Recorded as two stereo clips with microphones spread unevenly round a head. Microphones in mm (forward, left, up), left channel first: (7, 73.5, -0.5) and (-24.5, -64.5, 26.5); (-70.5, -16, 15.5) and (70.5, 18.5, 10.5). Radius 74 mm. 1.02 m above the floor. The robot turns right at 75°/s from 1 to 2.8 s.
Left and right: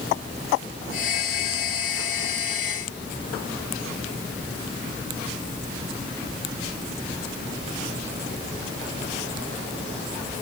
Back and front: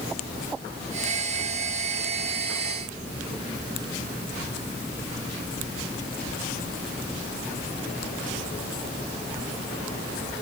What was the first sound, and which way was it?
Only background noise.